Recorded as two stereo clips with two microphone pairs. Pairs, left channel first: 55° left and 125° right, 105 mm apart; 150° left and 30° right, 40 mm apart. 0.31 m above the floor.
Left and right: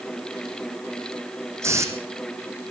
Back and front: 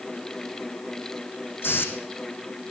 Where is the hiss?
175° left, 3 m.